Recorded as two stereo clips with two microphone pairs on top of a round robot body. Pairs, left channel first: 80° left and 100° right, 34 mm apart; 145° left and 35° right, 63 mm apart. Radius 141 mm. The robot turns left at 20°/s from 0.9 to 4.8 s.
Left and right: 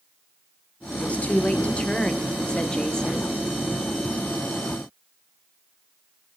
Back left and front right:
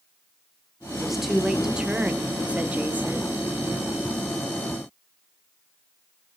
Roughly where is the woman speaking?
Ahead left.